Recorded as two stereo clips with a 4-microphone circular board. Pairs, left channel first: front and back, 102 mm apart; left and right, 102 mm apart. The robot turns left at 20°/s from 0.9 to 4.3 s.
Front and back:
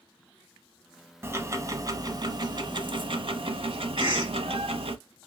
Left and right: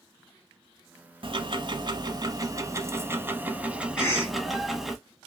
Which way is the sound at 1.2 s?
115° right.